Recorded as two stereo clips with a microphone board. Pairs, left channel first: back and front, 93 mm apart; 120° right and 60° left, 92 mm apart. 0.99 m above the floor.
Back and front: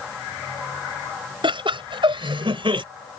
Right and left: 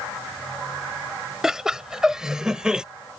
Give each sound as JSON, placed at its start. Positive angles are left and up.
{"t": 1.4, "sound": "laughter", "azimuth_deg": -25}